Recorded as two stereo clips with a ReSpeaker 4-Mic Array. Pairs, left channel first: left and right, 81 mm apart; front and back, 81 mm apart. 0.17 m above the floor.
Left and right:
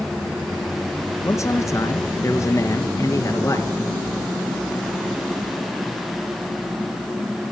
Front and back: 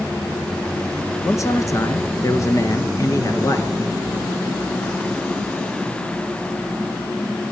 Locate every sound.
1.2 s a man speaking: 45° left, 3 m